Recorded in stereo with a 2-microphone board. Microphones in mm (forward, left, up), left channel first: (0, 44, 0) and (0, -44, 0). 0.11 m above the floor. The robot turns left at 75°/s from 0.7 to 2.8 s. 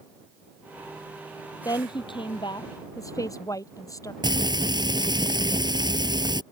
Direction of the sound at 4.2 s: 55° right (ahead or behind).